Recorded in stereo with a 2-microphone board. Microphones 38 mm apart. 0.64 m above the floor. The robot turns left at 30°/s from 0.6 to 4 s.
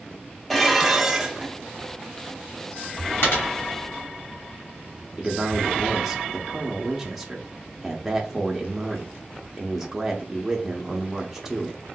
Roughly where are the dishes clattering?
Centre.